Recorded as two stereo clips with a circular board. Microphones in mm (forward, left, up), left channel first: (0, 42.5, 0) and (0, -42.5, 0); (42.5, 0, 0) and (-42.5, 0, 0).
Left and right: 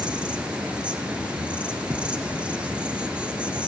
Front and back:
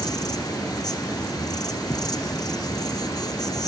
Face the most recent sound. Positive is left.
turn(degrees=-15)